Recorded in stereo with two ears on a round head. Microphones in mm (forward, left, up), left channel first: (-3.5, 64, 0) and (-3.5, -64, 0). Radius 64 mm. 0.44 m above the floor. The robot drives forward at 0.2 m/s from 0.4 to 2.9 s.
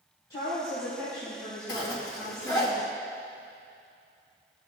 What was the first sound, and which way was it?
A woman speaking, 30° left (ahead or behind).